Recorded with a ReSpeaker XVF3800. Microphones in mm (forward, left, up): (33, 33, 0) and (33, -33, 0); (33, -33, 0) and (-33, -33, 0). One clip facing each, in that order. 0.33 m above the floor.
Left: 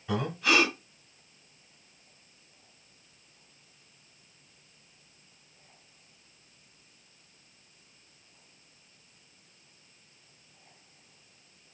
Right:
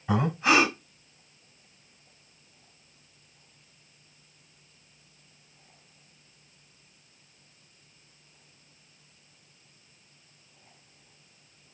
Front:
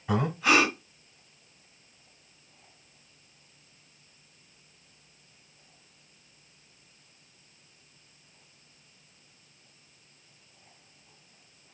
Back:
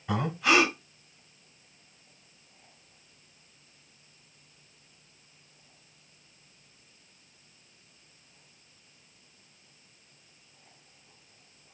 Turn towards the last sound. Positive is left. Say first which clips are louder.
# right 4 dB, front 1 dB
turn(degrees=-80)